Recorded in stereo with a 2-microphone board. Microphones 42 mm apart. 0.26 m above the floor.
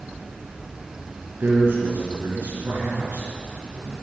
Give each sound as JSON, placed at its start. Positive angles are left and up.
{"t": 1.4, "sound": "a man speaking", "side_deg": -60, "distance_m": 3.5}